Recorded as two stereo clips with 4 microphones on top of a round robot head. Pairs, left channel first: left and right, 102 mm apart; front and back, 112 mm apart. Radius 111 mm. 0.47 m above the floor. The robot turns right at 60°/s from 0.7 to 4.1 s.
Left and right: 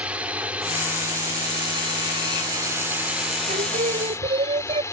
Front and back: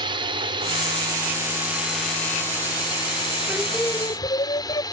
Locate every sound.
0.0 s a drone: 165° right; by 4.9 s 40° left
3.5 s singing: 100° right; by 4.8 s 60° right